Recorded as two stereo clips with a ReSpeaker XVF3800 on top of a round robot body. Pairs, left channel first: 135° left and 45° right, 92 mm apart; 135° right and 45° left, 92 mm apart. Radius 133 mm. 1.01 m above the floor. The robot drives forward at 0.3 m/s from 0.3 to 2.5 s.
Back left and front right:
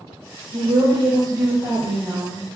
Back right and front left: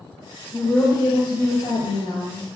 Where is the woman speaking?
75° right, 0.6 m; by 2.5 s 130° right, 0.7 m.